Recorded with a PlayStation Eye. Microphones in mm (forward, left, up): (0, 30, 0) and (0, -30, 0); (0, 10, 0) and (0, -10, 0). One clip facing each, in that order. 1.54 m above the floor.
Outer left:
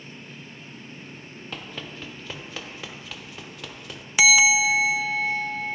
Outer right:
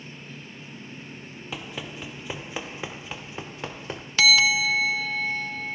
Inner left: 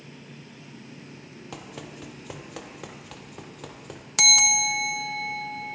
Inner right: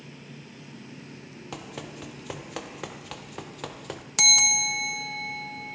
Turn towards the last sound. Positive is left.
turn(degrees=10)  # may be behind; listen again after turning